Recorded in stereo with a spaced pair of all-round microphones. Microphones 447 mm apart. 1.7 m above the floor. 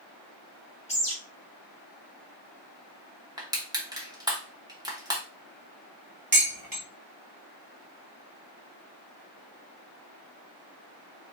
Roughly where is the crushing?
Centre.